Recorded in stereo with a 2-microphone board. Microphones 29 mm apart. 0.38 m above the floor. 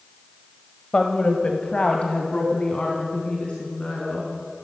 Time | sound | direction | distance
0.9 | a woman speaking | 35° left (ahead or behind) | 1.7 m